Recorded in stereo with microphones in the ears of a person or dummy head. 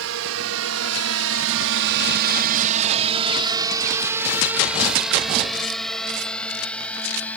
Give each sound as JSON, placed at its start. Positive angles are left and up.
{"t": 0.0, "sound": "a drone", "side_deg": -70}